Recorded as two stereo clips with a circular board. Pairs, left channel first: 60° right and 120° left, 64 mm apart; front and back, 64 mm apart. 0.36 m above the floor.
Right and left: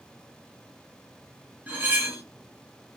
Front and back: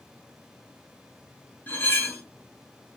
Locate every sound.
1.7 s cutlery clinking: 60° left, 1.3 m